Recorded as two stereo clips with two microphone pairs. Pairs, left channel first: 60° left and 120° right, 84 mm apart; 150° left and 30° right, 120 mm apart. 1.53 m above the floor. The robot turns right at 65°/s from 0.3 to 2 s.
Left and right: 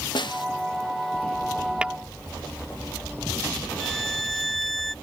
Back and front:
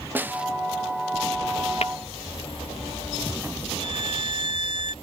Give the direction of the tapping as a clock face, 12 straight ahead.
7 o'clock.